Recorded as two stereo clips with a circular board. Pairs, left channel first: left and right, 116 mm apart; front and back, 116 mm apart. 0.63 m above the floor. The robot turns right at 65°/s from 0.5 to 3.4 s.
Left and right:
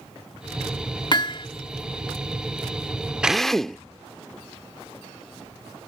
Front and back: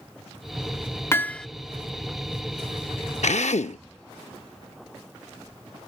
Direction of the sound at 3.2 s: 10° right.